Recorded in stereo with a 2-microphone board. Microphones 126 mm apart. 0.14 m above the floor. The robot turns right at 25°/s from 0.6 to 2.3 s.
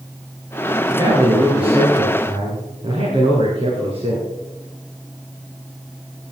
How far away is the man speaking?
About 2.5 m.